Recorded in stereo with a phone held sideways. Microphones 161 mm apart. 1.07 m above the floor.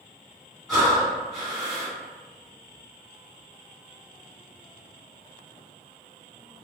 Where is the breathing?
5° right (ahead or behind), 1.4 m.